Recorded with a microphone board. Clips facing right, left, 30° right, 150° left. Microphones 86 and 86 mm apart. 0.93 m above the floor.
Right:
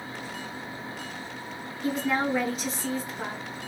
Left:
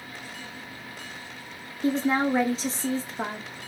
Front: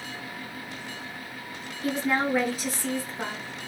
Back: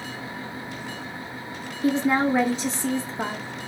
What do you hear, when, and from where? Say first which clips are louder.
1.8 s a woman speaking: left 3 dB, back 5 dB; 110° left, 0.5 m